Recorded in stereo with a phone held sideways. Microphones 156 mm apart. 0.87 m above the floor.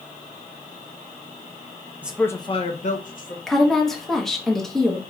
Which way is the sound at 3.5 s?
Centre (ahead or behind).